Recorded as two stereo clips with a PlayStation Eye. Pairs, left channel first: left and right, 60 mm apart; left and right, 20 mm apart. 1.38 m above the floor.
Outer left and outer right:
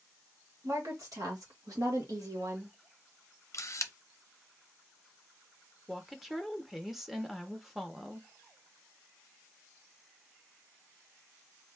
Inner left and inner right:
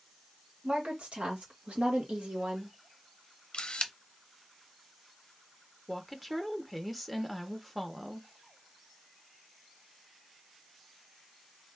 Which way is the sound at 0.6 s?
70° right (ahead or behind).